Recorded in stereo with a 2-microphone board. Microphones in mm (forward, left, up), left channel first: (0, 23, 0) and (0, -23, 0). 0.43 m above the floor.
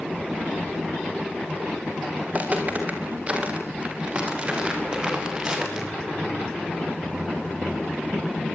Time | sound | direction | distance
2.3 | footsteps | 35° right (ahead or behind) | 7 m